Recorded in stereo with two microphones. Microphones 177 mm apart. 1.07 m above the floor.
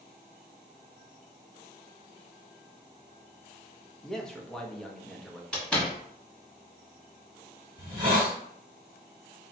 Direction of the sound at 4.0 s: 5° left (ahead or behind).